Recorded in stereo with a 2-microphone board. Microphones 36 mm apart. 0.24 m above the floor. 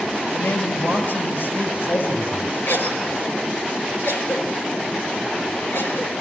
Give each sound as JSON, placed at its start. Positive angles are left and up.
{"t": 0.3, "sound": "a man speaking", "side_deg": 75, "distance_m": 6.0}
{"t": 2.7, "sound": "a cough", "side_deg": 70, "distance_m": 5.0}